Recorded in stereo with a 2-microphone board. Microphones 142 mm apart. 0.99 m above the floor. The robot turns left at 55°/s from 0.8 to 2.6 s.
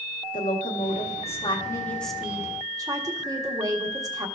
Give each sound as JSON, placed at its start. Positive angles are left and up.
{"t": 0.3, "sound": "a woman speaking", "azimuth_deg": 75, "distance_m": 1.3}